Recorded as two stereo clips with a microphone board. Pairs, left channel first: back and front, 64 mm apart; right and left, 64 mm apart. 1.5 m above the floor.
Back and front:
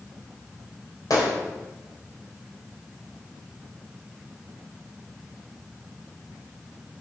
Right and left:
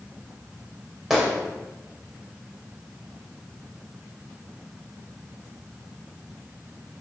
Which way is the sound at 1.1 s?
175° left.